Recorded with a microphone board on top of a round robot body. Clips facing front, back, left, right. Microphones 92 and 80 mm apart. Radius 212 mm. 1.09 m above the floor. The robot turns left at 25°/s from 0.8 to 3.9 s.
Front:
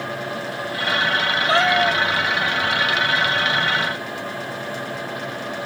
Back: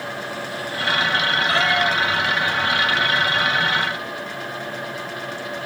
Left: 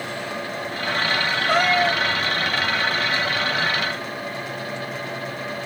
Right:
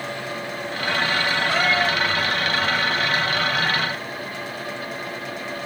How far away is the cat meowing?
About 0.6 m.